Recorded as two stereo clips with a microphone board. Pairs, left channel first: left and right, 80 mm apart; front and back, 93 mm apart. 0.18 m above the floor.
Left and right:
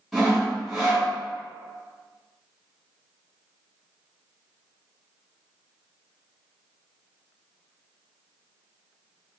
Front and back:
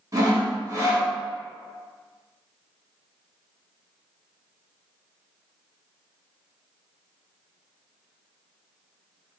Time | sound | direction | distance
0.1 | sawing | 175° left | 1.3 m